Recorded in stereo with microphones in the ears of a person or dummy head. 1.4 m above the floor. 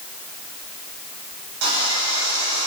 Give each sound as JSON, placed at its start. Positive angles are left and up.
{"t": 1.6, "sound": "sawing", "side_deg": -65, "distance_m": 8.5}